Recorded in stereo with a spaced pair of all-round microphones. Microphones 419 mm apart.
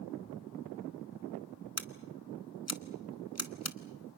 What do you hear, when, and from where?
1.8 s scissors: 35° left (ahead or behind), 1.0 m